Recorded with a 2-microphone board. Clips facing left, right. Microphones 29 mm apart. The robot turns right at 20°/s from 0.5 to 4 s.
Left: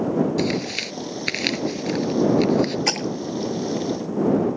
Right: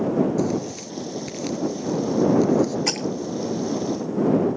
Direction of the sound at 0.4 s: 65° left (ahead or behind).